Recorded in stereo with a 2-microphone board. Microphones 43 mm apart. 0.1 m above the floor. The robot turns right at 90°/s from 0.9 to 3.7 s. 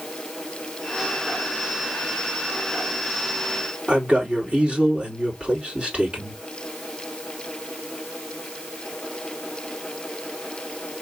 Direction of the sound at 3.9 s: 25° right (ahead or behind).